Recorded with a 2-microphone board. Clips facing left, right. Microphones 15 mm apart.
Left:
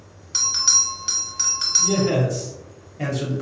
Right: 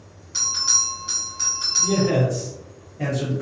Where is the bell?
35° left (ahead or behind), 1.0 m.